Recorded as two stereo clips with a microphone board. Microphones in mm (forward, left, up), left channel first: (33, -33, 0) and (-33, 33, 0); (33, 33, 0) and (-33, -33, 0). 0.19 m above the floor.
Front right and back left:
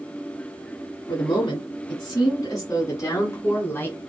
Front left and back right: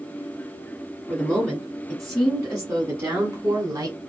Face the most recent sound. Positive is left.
turn(degrees=-105)